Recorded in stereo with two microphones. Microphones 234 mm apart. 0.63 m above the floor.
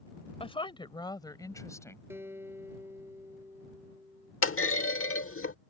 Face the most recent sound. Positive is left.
turn(degrees=75)  # may be behind; listen again after turning